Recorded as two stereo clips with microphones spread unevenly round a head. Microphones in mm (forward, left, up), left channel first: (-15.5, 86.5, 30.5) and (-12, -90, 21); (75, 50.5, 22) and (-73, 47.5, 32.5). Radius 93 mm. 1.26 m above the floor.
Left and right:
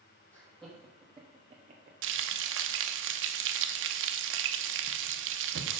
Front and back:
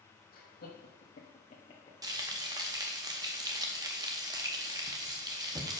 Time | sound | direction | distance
0.3 | laughter | 10° left | 1.8 m
2.0 | frying | 110° right | 0.7 m